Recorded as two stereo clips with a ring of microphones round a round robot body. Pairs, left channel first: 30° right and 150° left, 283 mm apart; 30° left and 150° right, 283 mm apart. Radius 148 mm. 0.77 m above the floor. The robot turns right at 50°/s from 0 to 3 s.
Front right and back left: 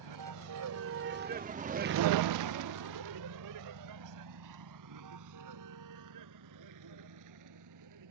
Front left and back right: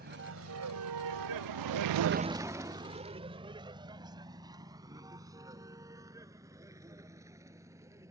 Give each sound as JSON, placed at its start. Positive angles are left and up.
{"t": 0.0, "sound": "a vehicle", "azimuth_deg": 150}